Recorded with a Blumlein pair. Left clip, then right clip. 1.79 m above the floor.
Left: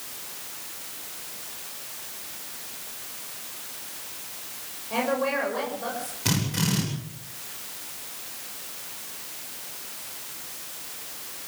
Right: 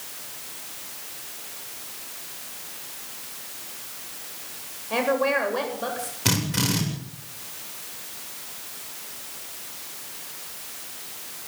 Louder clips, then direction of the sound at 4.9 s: Right 3 dB; 15° right.